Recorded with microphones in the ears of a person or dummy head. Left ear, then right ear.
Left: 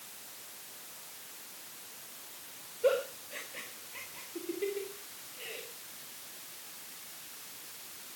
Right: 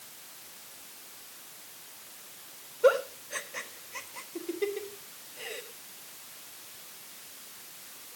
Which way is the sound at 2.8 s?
50° right (ahead or behind).